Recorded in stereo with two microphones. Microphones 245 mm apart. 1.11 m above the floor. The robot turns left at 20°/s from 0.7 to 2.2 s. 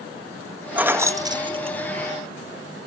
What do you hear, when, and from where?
0.8 s keys jangling: 5° right (ahead or behind), 0.7 m; by 2.1 s 30° right (ahead or behind), 0.7 m